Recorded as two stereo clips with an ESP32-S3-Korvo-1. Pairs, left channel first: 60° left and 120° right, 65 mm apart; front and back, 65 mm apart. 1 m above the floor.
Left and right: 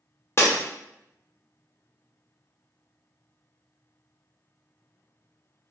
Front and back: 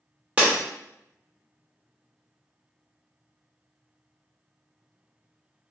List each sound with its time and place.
0.4 s breaking glass: 110° left, 0.6 m